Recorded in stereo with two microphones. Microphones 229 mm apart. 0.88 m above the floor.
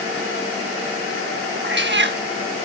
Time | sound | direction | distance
1.6 | a cat meowing | 50° right (ahead or behind) | 0.7 m